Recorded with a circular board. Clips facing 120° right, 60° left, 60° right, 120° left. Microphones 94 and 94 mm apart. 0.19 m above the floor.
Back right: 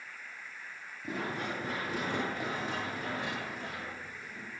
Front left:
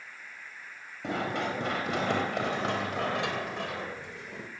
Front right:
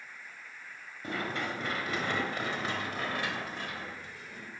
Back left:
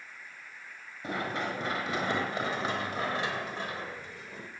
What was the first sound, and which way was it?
Running footsteps, 45° left.